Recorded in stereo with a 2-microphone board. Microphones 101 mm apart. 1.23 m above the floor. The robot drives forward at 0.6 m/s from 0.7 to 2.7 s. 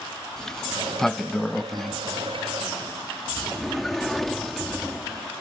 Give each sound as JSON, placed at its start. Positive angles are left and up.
{"t": 0.4, "sound": "a sliding door", "side_deg": 5}